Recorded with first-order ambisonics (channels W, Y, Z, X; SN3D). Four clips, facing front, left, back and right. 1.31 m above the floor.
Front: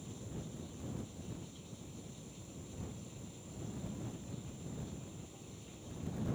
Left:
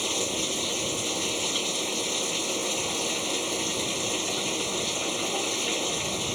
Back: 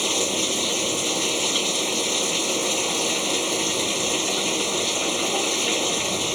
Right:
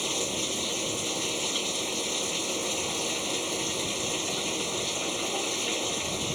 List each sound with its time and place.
0.0 s running water: 175° left